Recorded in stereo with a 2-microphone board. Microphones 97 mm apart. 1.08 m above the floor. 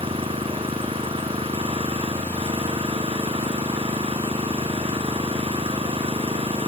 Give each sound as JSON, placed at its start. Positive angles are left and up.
{"t": 0.0, "sound": "an engine running", "side_deg": -75}